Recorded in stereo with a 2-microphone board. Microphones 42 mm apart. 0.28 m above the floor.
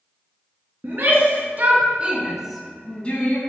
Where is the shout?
55° right (ahead or behind), 3 m; by 3.4 s 45° left (ahead or behind), 1.7 m.